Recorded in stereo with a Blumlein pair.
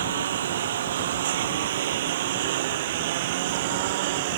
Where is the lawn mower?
60° right; by 4.4 s 50° right.